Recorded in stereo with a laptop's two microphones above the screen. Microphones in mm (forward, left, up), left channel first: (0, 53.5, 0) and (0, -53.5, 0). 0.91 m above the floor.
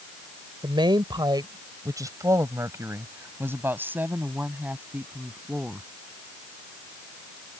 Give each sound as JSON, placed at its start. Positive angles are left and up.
{"t": 0.6, "sound": "a woman speaking", "side_deg": -50}